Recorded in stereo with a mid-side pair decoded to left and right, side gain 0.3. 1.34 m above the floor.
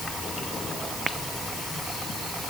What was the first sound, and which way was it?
Only background noise.